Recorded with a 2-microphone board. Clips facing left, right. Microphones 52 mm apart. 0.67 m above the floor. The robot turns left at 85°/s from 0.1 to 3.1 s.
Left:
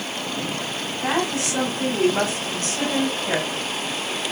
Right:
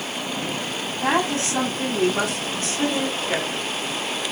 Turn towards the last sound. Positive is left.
turn(degrees=70)